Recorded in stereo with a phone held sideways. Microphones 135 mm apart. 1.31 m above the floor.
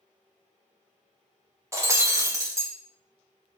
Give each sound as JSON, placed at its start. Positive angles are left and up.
{"t": 1.7, "sound": "breaking glass", "side_deg": -20, "distance_m": 0.8}